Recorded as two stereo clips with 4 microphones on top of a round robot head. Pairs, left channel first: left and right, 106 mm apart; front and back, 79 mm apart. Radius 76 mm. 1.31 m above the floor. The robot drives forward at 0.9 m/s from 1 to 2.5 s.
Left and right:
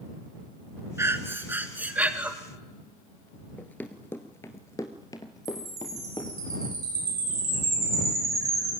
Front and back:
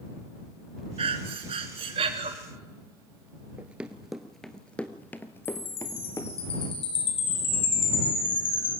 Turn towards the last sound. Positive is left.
turn(degrees=-25)